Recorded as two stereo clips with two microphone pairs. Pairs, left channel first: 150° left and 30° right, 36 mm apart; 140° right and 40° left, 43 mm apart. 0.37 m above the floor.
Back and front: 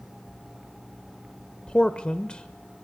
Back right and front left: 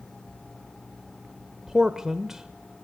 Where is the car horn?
I don't hear a car horn.